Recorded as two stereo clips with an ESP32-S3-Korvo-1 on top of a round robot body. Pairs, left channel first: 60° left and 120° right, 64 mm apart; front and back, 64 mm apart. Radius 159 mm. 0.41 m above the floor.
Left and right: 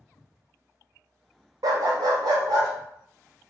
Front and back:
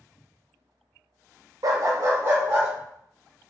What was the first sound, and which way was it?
A dog barking, 145° right.